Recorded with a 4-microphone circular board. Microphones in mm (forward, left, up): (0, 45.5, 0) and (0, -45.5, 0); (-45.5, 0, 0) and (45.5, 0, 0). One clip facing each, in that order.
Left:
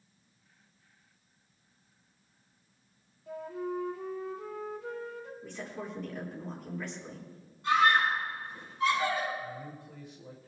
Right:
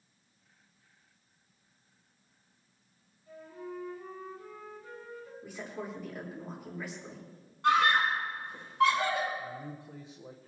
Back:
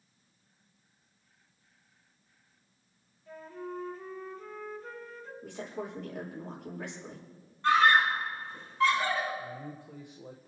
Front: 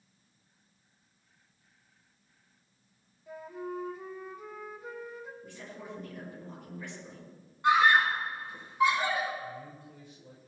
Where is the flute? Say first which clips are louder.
Left 7 dB, front 2 dB; 80° left, 1.5 m.